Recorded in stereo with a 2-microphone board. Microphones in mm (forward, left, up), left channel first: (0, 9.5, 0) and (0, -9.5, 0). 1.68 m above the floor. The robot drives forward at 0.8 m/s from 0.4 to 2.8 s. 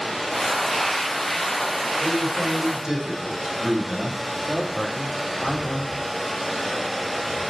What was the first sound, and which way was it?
A man speaking, 45° right (ahead or behind).